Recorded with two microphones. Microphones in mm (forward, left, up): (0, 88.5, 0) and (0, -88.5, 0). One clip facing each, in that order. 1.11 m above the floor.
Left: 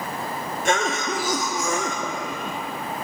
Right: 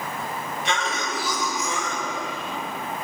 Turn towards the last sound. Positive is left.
turn(degrees=50)  # may be behind; listen again after turning